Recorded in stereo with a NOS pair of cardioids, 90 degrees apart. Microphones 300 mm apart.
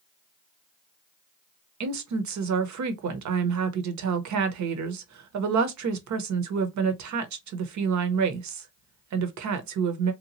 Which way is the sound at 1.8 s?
60° right.